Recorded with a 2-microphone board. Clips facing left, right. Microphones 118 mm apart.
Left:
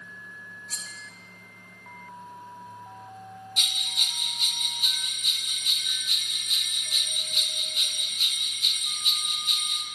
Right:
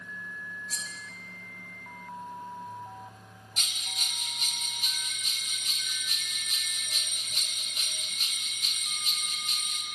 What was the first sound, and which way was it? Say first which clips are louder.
Cutlery clinking: right 2 dB; 65° left (ahead or behind).